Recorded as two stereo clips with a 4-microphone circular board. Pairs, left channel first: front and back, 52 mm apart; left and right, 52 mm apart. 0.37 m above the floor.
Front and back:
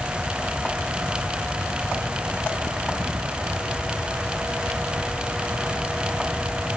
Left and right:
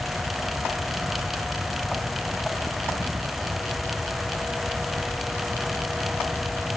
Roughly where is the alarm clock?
I don't hear an alarm clock.